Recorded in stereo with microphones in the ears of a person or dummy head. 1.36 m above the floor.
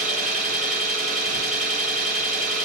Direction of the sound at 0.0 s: 70° right (ahead or behind).